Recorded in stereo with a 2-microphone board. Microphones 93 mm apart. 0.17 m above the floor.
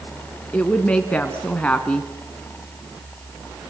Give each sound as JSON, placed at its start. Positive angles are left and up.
{"t": 0.5, "sound": "a woman speaking", "side_deg": 15, "distance_m": 1.7}